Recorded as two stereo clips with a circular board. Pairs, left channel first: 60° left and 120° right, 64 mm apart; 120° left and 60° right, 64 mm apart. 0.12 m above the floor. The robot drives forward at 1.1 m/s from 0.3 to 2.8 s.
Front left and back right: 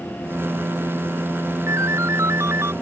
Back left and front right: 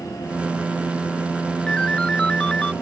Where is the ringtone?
165° right.